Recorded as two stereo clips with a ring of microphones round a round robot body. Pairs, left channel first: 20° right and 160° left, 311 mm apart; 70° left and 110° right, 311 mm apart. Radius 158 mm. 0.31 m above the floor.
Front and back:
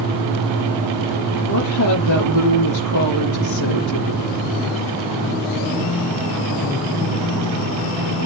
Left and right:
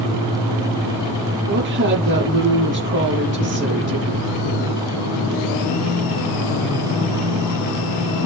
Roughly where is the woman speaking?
Ahead right.